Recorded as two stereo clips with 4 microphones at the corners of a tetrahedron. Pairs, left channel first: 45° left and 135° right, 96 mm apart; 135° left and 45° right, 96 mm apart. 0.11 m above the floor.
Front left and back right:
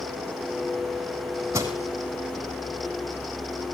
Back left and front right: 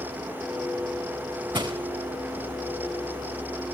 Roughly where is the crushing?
Right.